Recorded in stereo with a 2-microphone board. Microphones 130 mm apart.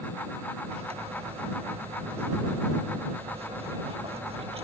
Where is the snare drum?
I don't hear a snare drum.